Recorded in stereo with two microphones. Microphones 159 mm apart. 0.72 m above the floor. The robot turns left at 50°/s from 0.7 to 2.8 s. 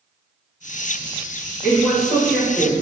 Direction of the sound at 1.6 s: 155° right.